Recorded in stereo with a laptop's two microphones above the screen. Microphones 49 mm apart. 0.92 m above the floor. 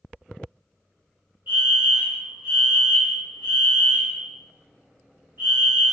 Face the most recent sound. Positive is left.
turn(degrees=-55)  # may be behind; listen again after turning